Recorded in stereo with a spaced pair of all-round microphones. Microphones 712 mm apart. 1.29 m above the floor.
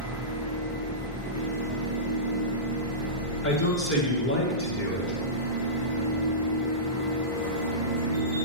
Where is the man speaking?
15° left (ahead or behind), 1.8 m.